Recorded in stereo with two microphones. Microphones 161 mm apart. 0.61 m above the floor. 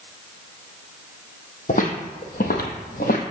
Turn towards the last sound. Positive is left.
turn(degrees=65)  # may be behind; listen again after turning